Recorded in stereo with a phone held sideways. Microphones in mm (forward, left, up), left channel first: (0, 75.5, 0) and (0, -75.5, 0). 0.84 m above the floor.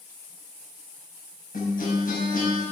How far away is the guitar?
About 5.5 m.